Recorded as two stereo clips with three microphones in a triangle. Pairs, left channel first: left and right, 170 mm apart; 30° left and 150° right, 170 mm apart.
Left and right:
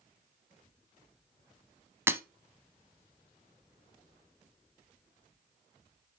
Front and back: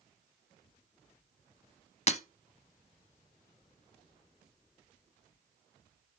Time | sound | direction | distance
2.1 | breaking glass | 15° right | 0.7 m